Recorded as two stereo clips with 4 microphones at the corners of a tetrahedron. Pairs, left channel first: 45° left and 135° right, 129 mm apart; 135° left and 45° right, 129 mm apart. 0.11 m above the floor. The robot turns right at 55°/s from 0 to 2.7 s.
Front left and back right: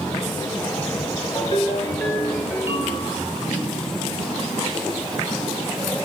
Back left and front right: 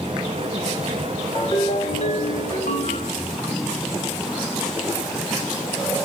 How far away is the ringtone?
About 1.8 m.